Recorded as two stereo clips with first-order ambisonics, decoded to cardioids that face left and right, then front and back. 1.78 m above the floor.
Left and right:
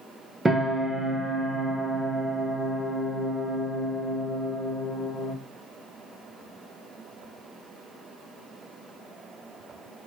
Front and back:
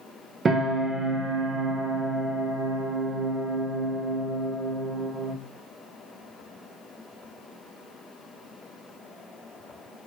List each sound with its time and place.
0.5 s a piano: 155° right, 0.9 m